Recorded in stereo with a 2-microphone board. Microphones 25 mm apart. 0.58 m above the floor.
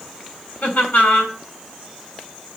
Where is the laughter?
75° left (ahead or behind), 3 m.